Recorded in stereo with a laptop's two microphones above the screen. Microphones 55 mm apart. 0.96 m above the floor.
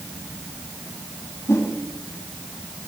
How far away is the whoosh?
About 2.5 m.